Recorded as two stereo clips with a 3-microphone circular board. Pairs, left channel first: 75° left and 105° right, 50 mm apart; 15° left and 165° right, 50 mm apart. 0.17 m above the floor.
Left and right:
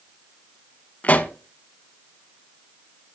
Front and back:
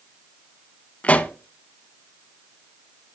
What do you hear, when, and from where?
1.0 s a pop: 50° left, 0.5 m